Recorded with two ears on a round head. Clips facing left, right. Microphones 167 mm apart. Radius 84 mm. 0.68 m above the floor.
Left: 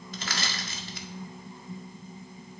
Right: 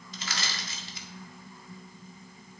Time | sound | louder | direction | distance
0.1 | crushing | left 3 dB | 45° left (ahead or behind) | 1.7 m